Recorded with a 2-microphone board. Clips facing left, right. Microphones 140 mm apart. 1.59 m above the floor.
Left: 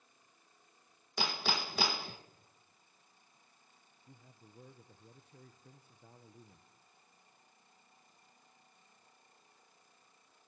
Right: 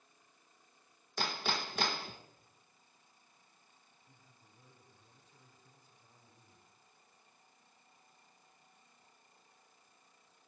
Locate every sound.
1.2 s hammering: 5° left (ahead or behind), 1.5 m
4.1 s a man speaking: 65° left (ahead or behind), 1.4 m